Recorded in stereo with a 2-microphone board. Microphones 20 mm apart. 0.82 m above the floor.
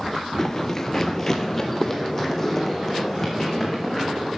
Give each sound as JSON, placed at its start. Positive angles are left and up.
{"t": 0.4, "sound": "running footsteps", "side_deg": 20, "distance_m": 0.8}